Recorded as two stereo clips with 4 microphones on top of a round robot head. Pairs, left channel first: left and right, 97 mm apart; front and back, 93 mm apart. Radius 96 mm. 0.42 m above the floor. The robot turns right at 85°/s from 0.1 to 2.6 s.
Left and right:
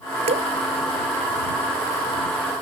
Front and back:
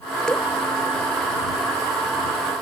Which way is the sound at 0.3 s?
85° right.